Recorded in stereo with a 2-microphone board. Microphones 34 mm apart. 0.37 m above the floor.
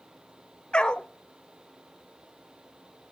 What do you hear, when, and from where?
0.7 s a dog barking: 30° left (ahead or behind), 0.5 m